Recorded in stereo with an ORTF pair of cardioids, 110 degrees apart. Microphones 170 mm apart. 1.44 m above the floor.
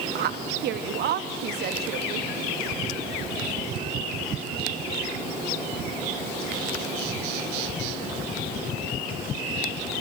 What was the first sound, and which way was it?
A woman speaking, 65° right.